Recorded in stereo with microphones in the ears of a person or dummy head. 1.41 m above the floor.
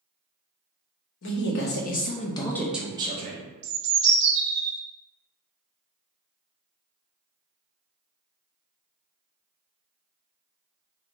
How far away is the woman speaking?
About 0.9 m.